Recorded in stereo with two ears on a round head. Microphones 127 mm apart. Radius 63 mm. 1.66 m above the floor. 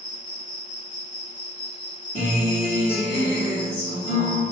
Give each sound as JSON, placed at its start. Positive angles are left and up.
{"t": 0.0, "sound": "an insect", "side_deg": -15, "distance_m": 1.6}
{"t": 2.1, "sound": "a guitar", "side_deg": 40, "distance_m": 1.5}